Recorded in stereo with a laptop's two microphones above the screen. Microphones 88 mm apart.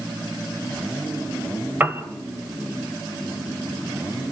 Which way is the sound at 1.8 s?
20° right (ahead or behind).